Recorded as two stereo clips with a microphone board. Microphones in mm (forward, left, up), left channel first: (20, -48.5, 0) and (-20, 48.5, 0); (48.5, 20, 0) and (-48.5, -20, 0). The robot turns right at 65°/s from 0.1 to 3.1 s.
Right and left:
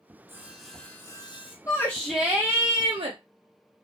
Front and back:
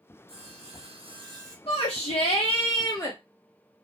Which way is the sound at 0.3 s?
Straight behind.